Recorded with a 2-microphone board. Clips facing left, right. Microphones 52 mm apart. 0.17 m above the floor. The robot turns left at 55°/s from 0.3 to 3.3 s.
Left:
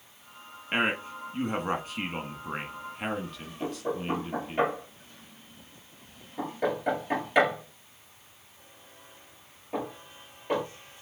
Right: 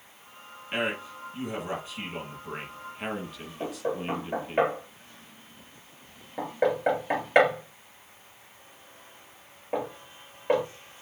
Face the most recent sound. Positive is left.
turn(degrees=-40)  # may be behind; listen again after turning